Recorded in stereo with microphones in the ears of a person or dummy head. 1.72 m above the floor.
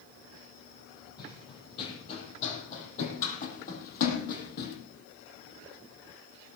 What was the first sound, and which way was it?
Running footsteps, 25° left (ahead or behind).